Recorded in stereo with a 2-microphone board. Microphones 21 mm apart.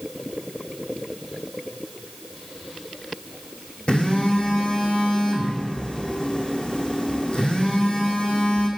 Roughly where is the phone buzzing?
Left.